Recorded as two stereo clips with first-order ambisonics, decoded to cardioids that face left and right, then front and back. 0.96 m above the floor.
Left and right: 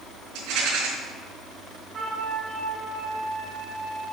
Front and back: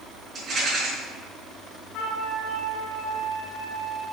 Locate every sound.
0.3 s a rattle: 115° right, 4 m
1.9 s a flute: 30° right, 2.5 m